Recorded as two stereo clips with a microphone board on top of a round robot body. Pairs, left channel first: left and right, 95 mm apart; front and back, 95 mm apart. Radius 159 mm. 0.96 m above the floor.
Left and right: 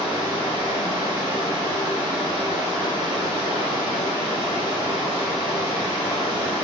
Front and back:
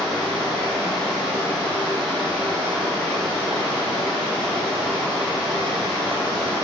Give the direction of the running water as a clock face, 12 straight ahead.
9 o'clock.